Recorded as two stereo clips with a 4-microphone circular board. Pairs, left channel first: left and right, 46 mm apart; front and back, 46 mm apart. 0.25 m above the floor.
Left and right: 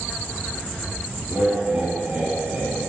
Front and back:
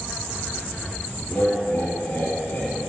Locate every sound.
1.3 s laughter: 45° right, 2.5 m